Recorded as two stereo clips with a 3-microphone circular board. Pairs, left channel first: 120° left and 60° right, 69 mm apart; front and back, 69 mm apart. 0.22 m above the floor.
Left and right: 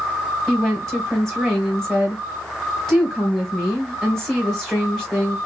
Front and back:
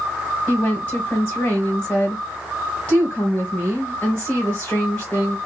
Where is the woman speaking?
40° left, 1.3 m.